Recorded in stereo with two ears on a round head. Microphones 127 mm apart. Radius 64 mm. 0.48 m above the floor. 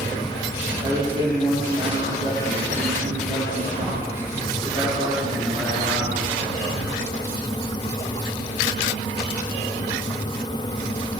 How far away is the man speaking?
About 9.5 m.